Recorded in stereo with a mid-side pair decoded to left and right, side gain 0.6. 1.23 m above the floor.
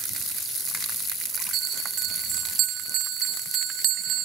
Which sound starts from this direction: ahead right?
A bell, at 1.5 s.